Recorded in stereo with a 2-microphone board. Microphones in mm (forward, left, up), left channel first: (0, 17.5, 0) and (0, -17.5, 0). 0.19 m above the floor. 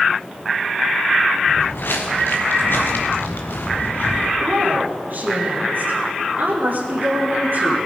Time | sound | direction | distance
1.5 | footsteps | 75° left (ahead or behind) | 2.5 m
4.4 | a woman speaking | 65° right (ahead or behind) | 4 m